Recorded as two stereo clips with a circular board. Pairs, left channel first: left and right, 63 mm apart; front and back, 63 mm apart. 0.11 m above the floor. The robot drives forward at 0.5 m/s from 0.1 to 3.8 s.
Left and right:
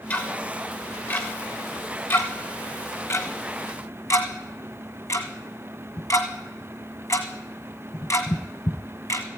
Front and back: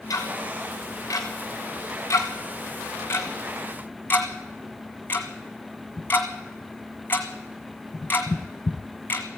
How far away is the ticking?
About 3 m.